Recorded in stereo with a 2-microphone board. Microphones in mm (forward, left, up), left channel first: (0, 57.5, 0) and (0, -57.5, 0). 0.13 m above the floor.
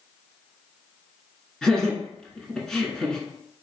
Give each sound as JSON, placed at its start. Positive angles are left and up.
{"t": 1.6, "sound": "laughter", "side_deg": 5, "distance_m": 1.2}